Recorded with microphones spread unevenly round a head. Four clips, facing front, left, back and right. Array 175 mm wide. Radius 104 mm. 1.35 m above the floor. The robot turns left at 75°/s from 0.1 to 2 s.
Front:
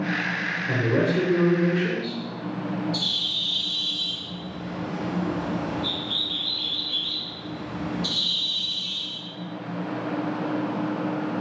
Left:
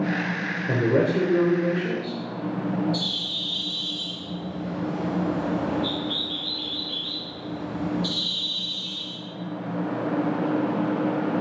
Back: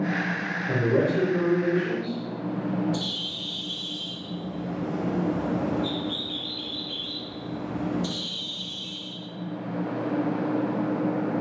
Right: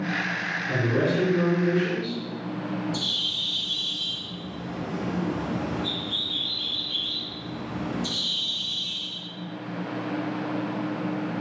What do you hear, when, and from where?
0.7 s a man speaking: 105° left, 1.3 m; by 2.2 s 5° left, 1.3 m
2.9 s a bird: 175° right, 0.6 m